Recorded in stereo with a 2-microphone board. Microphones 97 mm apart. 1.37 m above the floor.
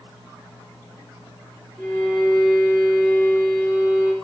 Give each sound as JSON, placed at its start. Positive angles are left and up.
{"t": 1.8, "sound": "a violin", "side_deg": 0, "distance_m": 3.0}